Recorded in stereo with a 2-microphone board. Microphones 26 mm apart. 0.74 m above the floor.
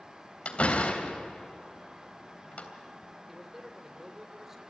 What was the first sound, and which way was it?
A door slam, 55° left (ahead or behind).